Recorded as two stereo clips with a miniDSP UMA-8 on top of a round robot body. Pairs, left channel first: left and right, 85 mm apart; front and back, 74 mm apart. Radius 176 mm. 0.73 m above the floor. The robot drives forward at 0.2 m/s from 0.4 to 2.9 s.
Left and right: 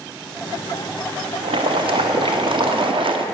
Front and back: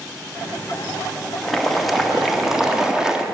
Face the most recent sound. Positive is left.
turn(degrees=-100)